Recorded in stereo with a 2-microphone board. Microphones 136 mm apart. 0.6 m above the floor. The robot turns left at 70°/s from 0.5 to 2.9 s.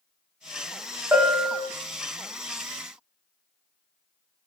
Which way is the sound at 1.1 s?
160° right.